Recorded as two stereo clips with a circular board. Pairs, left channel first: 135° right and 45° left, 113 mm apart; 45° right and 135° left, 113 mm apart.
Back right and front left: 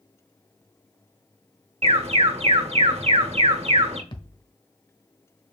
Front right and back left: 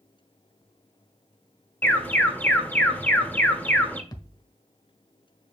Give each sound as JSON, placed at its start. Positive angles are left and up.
{"t": 1.8, "sound": "an alarm", "azimuth_deg": 30, "distance_m": 1.5}
{"t": 4.1, "sound": "a thud", "azimuth_deg": -95, "distance_m": 1.1}